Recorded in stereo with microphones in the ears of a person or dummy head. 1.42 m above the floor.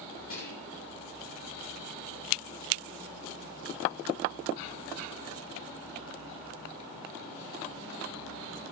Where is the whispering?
40° left (ahead or behind), 2.5 m.